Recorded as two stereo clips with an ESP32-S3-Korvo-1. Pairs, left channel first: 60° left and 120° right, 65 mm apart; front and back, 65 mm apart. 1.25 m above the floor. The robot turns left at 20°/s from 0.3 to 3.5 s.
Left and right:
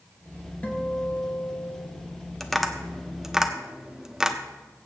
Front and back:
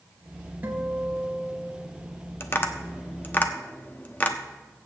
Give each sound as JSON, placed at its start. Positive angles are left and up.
{"t": 0.6, "sound": "a guitar", "azimuth_deg": 120, "distance_m": 1.9}
{"t": 2.4, "sound": "tapping", "azimuth_deg": -20, "distance_m": 0.8}